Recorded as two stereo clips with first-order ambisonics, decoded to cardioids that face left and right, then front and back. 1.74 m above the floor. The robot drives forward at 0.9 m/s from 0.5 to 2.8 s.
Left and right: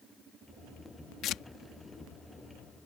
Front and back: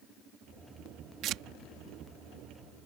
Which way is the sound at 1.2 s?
135° left.